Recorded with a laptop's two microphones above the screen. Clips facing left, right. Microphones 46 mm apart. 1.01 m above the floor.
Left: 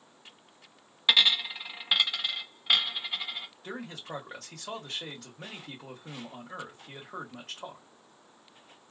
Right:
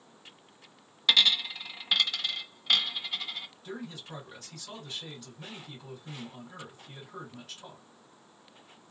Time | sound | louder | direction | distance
1.1 | a dropped coin | left 1 dB | 15° left (ahead or behind) | 0.6 m
3.6 | a man speaking | left 2 dB | 65° left (ahead or behind) | 1.8 m